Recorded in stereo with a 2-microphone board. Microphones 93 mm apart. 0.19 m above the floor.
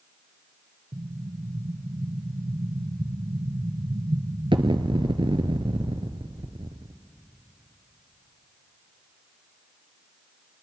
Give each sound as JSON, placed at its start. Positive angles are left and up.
{"t": 0.9, "sound": "an explosion", "side_deg": -70, "distance_m": 0.9}